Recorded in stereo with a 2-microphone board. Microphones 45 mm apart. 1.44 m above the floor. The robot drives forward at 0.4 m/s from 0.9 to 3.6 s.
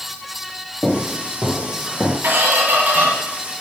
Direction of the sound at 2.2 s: 45° right (ahead or behind).